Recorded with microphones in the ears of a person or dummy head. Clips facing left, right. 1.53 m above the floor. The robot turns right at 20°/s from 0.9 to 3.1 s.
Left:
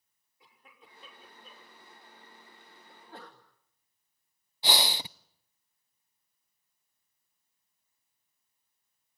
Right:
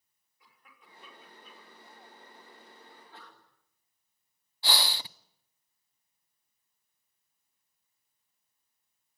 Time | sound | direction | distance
0.4 | a cough | 20° left (ahead or behind) | 6 m
2.9 | a sneeze | 40° left (ahead or behind) | 2 m
4.6 | breathing | 15° left (ahead or behind) | 0.5 m